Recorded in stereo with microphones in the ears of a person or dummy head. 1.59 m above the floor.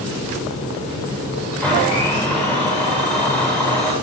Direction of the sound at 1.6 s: 5° left (ahead or behind).